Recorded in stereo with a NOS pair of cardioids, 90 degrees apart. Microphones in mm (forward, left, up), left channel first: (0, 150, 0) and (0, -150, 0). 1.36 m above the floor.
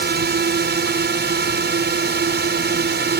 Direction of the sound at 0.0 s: 40° right.